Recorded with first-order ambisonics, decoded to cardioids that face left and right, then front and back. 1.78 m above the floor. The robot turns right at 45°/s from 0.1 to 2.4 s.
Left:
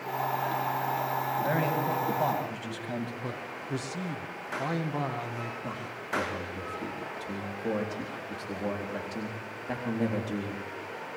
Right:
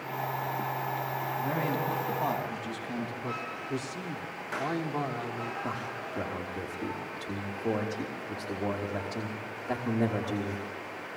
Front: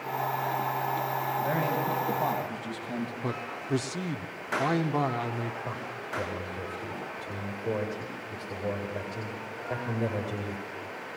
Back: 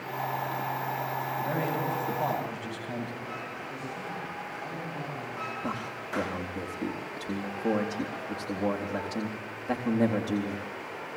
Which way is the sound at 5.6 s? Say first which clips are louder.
Right 1 dB, back 1 dB; 160° left.